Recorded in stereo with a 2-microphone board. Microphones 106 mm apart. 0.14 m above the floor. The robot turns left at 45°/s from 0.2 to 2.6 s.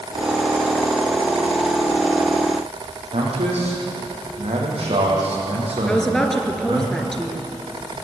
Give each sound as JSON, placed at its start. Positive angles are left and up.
{"t": 3.1, "sound": "a man speaking", "side_deg": -75, "distance_m": 7.5}
{"t": 5.9, "sound": "a woman speaking", "side_deg": 5, "distance_m": 3.0}